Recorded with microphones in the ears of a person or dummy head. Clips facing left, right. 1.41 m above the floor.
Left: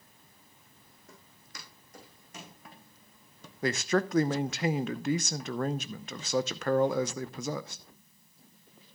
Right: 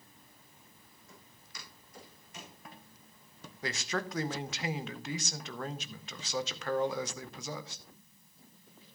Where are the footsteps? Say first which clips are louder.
Left 2 dB; 50° left (ahead or behind), 5 m; by 2.6 s 45° left (ahead or behind), 5 m.